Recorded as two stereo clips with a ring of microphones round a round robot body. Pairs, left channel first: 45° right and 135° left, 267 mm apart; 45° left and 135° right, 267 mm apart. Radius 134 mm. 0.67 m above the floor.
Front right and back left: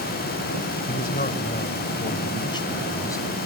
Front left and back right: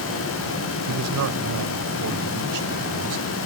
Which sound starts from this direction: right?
A man speaking, at 0.9 s.